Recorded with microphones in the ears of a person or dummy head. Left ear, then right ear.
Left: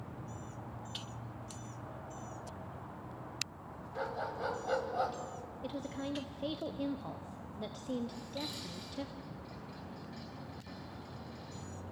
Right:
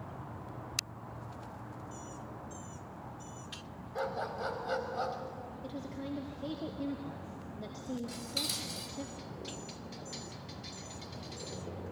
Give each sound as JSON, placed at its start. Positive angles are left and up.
{"t": 4.0, "sound": "a dog barking", "side_deg": -5, "distance_m": 1.9}
{"t": 5.6, "sound": "a woman speaking", "side_deg": 30, "distance_m": 0.8}
{"t": 8.1, "sound": "dishes clattering", "side_deg": -75, "distance_m": 5.0}